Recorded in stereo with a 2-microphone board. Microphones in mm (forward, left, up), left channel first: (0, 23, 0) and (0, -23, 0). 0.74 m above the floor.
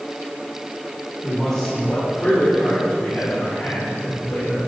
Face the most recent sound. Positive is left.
turn(degrees=70)  # may be behind; listen again after turning